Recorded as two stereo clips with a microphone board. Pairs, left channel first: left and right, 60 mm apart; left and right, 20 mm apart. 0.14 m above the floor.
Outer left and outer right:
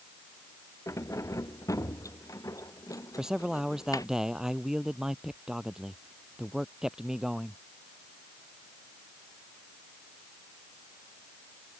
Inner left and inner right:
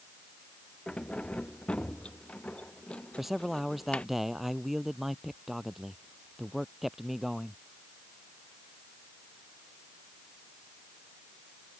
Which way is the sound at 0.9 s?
60° left (ahead or behind).